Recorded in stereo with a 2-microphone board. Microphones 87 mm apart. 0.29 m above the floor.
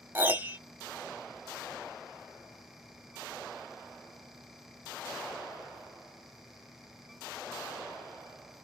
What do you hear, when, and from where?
0.1 s a piano: 20° right (ahead or behind), 1.1 m